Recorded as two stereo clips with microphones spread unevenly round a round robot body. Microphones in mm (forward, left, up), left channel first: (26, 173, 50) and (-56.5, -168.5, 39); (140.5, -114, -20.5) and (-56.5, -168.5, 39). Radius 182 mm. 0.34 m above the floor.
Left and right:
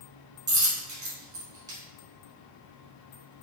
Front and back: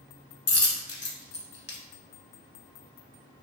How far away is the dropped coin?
About 0.8 m.